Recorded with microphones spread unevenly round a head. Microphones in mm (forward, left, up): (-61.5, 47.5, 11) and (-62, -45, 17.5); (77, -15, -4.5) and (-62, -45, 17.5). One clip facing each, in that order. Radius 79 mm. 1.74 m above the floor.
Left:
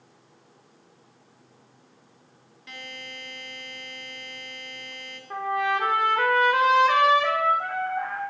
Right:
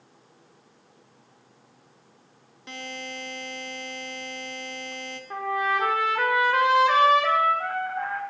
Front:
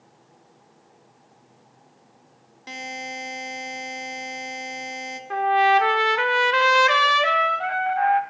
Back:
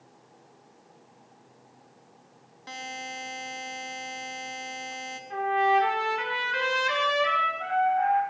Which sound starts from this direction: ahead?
A trumpet, at 5.3 s.